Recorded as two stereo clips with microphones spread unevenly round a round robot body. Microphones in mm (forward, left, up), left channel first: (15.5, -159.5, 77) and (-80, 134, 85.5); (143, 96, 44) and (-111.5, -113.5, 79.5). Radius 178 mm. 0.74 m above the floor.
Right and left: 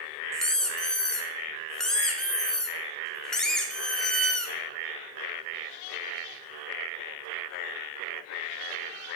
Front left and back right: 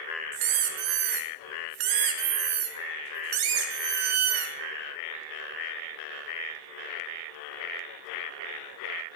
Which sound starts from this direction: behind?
A squeak, at 0.3 s.